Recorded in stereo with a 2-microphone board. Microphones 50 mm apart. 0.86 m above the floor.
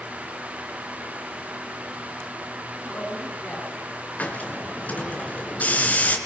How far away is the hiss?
About 3 m.